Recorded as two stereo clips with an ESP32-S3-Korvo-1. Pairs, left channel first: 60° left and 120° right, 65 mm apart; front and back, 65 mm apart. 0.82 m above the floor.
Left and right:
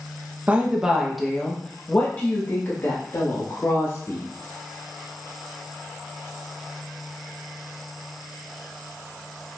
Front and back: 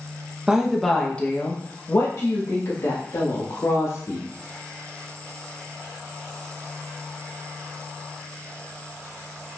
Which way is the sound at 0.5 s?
120° right.